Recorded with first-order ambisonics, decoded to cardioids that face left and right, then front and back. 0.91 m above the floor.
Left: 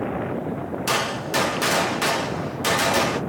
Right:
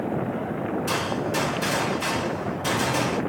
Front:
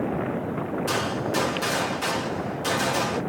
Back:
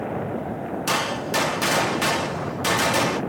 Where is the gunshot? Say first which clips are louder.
Left 5 dB, back 4 dB; 135° left, 0.7 m.